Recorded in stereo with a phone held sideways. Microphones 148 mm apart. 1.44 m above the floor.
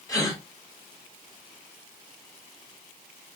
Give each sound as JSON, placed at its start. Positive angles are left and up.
{"t": 0.1, "sound": "a gasp", "side_deg": 25, "distance_m": 2.5}